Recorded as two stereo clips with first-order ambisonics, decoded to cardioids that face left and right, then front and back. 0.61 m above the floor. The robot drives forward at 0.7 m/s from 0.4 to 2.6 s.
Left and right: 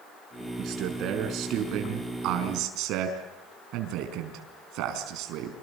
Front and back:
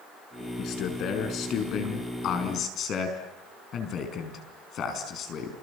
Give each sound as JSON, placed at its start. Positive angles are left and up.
{"t": 0.6, "sound": "a man speaking", "azimuth_deg": -45, "distance_m": 5.5}